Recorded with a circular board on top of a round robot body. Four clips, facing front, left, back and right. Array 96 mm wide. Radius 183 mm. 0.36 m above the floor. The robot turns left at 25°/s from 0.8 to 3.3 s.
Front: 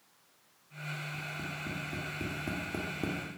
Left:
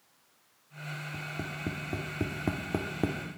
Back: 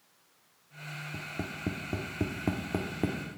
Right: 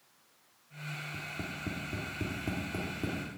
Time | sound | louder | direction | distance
1.1 | tapping | left 4 dB, back 2 dB | 155° left | 1.5 m